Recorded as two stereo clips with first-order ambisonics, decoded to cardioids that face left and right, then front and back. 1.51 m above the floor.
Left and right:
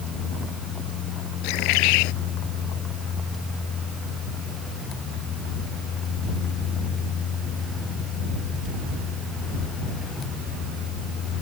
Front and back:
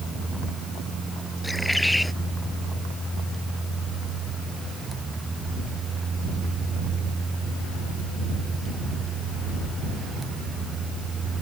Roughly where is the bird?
Left.